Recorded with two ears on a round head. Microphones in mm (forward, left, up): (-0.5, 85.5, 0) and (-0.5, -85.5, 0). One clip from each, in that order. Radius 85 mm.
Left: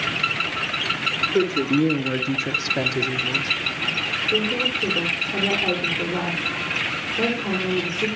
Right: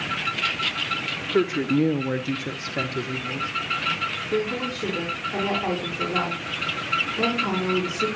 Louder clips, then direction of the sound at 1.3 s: Left 2 dB; 50° right (ahead or behind).